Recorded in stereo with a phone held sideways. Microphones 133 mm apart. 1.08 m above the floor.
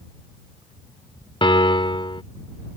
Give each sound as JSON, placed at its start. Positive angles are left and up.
{"t": 1.4, "sound": "a piano", "side_deg": 40}